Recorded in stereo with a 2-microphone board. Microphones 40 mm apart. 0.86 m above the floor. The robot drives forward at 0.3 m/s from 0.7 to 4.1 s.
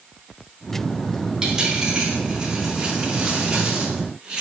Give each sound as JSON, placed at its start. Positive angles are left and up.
{"t": 1.4, "sound": "a dropped coin", "side_deg": -15, "distance_m": 4.0}